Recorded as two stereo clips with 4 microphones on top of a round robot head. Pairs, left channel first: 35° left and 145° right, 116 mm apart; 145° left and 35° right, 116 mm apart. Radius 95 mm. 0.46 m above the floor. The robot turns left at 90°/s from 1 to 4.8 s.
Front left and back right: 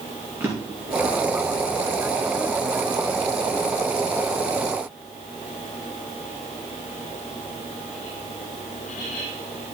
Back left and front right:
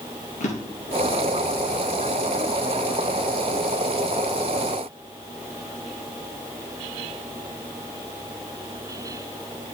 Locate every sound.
0.4 s a drawer: 145° left, 3 m